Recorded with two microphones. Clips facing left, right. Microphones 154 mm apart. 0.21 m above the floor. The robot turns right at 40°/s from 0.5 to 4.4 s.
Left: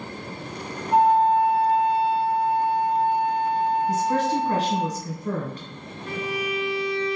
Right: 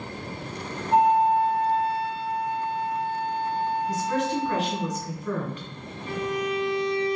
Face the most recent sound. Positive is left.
turn(degrees=70)  # may be behind; listen again after turning